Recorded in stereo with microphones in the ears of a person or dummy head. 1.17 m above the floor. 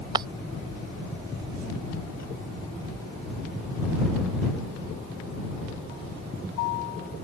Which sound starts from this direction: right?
Breaking glass, at 0.1 s.